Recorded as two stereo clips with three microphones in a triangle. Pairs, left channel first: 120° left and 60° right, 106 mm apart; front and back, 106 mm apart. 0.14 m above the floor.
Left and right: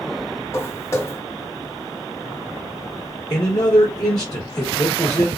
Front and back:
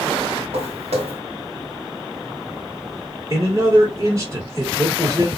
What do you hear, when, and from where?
0.5 s footsteps: 175° right, 1.5 m
3.3 s a man speaking: 135° left, 1.7 m